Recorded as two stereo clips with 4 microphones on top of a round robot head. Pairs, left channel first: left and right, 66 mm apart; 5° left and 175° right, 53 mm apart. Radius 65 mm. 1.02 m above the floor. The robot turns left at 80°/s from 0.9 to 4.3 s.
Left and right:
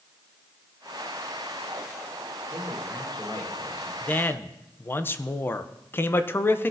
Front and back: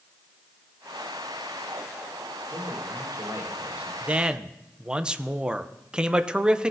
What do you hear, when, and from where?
2.5 s a man speaking: 145° right, 4.5 m; by 3.9 s 105° left, 4.5 m
4.0 s a man speaking: 140° left, 0.7 m; by 6.7 s 120° left, 0.7 m